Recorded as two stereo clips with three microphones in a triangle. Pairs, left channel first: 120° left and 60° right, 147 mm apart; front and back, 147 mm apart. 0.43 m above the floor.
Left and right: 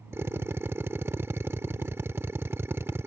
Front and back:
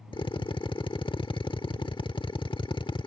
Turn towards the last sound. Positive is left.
turn(degrees=0)